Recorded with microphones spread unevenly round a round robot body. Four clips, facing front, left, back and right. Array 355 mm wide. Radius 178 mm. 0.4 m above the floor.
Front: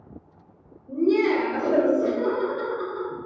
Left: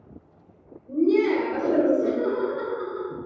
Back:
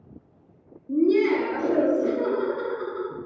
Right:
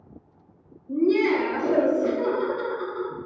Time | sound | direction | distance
0.9 | laughter | 65° left | 1.9 m